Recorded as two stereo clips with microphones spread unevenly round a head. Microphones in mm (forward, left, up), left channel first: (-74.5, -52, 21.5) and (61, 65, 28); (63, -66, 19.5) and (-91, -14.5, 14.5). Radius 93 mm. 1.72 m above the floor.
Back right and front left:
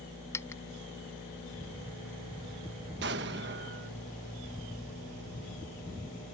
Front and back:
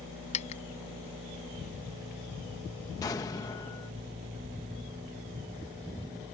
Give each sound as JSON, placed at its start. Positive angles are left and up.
{"t": 0.3, "sound": "a dropped coin", "azimuth_deg": -65}
{"t": 3.0, "sound": "an explosion", "azimuth_deg": 50}